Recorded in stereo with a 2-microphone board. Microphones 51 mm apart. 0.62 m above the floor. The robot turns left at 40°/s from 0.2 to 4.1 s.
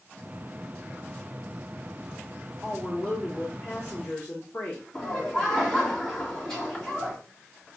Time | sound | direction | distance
2.6 | a woman speaking | 155° left | 1.0 m
4.9 | laughter | 10° left (ahead or behind) | 1.6 m